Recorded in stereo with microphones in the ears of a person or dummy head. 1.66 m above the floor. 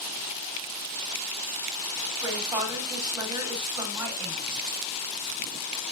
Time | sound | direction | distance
2.2 | a woman speaking | 15° right (ahead or behind) | 3 m